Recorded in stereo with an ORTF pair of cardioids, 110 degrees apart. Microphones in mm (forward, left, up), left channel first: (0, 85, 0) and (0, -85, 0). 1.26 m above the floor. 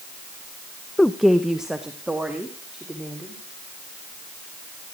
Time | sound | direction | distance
1.0 | a woman speaking | 5° left | 0.6 m